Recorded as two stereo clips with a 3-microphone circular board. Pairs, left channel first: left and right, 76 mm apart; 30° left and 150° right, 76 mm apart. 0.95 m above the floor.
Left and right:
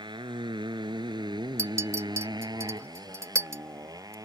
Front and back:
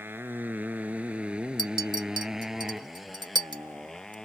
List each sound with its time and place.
0.0 s a motorcycle: 85° right; by 4.2 s 50° right
1.6 s a clink: 140° right